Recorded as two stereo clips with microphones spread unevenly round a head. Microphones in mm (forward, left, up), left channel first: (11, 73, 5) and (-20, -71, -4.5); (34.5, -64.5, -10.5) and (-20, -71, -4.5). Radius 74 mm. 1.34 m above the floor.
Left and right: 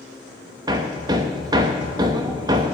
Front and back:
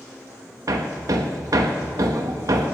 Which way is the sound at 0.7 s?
165° right.